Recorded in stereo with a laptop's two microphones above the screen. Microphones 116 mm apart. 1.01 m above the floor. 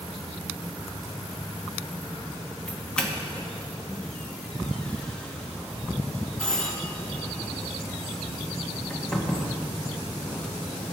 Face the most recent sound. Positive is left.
turn(degrees=5)  # may be behind; listen again after turning